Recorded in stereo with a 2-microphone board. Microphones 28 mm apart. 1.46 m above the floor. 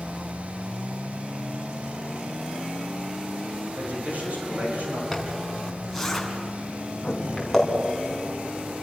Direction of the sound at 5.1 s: Centre (ahead or behind).